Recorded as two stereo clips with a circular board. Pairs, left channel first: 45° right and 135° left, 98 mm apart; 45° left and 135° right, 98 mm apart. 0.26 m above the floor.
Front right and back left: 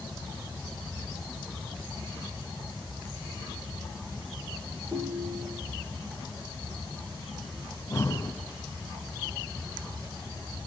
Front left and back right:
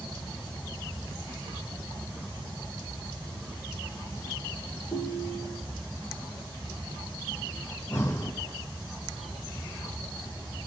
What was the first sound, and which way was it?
A ringtone, 70° left.